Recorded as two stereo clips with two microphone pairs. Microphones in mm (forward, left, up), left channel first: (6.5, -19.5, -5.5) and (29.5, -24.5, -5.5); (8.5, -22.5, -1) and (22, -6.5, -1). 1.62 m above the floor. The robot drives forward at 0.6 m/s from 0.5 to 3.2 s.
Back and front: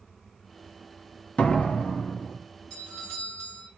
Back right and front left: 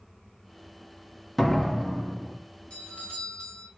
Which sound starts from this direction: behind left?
A door slam, at 1.4 s.